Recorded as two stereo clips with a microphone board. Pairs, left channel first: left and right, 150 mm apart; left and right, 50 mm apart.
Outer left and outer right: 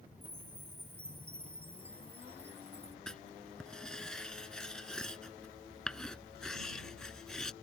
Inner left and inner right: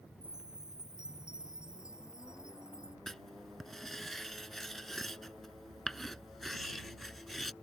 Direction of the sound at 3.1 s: 5° left (ahead or behind).